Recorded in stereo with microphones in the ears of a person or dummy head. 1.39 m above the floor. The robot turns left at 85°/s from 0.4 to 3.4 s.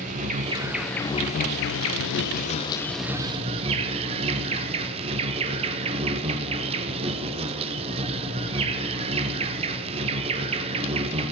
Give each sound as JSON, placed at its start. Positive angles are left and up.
{"t": 0.0, "sound": "an insect", "azimuth_deg": -140, "distance_m": 0.8}